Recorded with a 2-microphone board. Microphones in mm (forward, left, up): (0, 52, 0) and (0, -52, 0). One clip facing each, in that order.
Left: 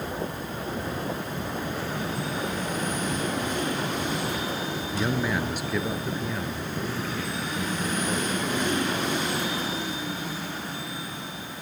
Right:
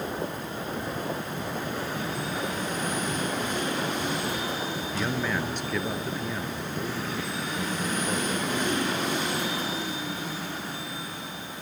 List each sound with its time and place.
4.9 s a man speaking: 15° left (ahead or behind), 1.7 m; by 9.1 s 10° right (ahead or behind), 3.5 m